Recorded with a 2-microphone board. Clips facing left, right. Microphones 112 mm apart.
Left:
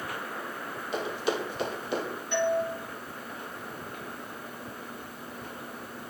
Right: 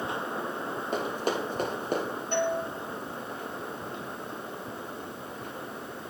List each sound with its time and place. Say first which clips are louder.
0.9 s running footsteps: even; 45° right (ahead or behind), 3 m
2.3 s a doorbell: left 2 dB; 40° right (ahead or behind), 2.5 m